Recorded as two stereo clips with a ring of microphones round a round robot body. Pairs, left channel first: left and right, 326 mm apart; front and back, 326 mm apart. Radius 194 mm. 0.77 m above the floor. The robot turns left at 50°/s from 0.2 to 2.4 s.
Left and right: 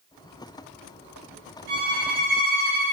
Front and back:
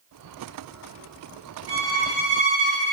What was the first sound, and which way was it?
A violin, 105° right.